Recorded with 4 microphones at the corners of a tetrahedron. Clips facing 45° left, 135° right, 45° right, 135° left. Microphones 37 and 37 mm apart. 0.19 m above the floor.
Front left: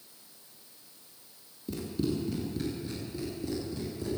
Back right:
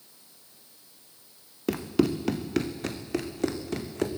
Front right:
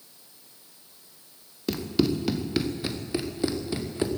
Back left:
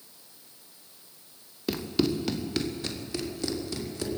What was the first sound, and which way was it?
Running footsteps, 140° right.